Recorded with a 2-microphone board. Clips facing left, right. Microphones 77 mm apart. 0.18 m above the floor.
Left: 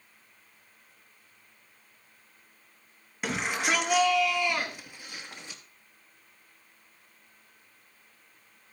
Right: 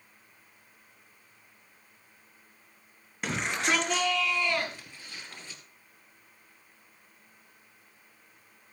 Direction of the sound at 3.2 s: 5° left (ahead or behind).